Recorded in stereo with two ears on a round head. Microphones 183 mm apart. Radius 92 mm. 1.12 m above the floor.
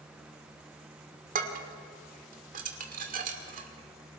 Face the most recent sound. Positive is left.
turn(degrees=-40)  # may be behind; listen again after turning